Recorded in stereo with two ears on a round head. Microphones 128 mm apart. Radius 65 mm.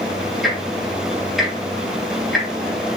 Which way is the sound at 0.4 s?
Centre (ahead or behind).